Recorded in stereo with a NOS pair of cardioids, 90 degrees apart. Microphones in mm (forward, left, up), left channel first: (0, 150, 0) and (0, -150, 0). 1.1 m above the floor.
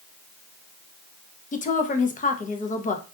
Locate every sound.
1.5 s a woman speaking: 25° left, 0.6 m